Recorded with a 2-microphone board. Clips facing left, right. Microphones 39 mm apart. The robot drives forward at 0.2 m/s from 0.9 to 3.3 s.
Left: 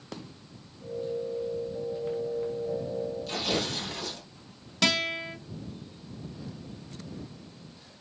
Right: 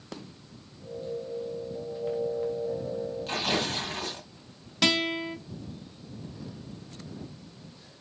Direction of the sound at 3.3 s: 35° right (ahead or behind).